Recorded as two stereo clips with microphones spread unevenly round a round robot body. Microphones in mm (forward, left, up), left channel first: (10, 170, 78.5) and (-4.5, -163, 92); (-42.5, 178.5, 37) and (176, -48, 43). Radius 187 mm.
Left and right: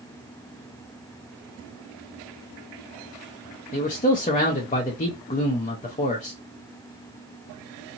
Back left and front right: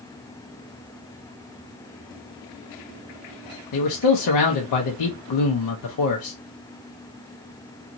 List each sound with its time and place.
3.7 s a man speaking: 155° left, 0.6 m